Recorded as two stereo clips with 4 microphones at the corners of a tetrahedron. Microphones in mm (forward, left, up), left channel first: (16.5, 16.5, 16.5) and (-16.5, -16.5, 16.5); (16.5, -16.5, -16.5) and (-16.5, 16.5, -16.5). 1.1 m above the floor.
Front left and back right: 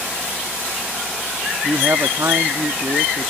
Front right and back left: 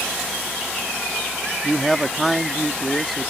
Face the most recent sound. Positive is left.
turn(degrees=-135)